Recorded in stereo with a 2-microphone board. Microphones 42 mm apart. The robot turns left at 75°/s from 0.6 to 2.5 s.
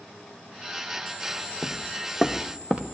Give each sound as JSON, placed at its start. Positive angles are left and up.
{"t": 1.6, "sound": "footsteps", "side_deg": 10, "distance_m": 0.7}